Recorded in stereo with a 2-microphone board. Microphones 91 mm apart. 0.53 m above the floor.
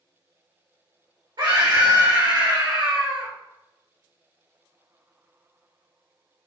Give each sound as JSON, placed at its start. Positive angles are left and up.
{"t": 1.4, "sound": "a scream", "side_deg": -55, "distance_m": 2.0}